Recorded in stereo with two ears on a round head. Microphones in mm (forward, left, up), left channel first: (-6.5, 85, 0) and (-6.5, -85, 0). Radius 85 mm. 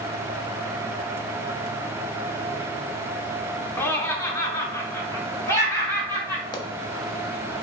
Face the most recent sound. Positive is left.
turn(degrees=25)  # may be behind; listen again after turning